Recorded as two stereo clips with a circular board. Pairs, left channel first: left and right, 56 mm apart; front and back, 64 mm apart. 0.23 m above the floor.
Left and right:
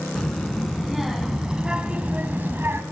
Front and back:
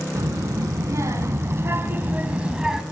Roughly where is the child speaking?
Behind.